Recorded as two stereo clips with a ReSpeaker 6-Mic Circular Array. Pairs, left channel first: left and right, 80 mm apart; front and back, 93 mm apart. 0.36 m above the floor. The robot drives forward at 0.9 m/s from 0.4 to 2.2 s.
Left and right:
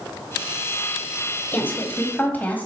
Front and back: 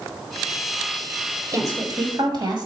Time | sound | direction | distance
1.5 | a woman speaking | 145° left | 1.4 m